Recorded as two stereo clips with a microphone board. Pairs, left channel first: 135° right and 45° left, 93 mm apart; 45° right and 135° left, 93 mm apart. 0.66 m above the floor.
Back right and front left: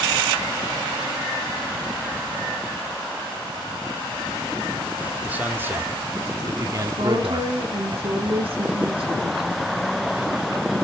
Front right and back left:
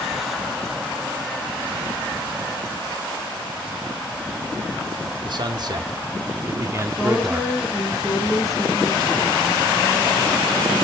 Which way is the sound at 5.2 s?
115° left.